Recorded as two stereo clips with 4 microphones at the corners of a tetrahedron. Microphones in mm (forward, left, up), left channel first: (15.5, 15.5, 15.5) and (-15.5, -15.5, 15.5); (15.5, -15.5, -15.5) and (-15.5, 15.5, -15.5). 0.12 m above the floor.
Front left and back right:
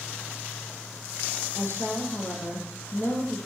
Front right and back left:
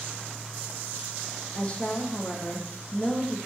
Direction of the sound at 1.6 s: 15° left.